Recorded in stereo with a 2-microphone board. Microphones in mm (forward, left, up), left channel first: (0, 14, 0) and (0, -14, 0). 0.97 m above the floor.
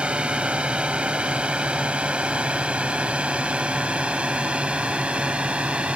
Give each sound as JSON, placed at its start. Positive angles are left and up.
{"t": 0.0, "sound": "a drone", "side_deg": -40}